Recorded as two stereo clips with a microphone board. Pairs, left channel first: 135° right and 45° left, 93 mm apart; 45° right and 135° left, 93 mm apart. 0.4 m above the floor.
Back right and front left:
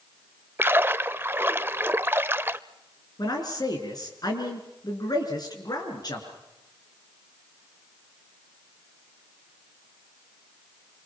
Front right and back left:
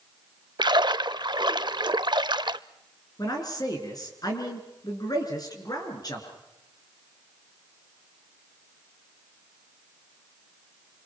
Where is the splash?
110° left, 0.5 m.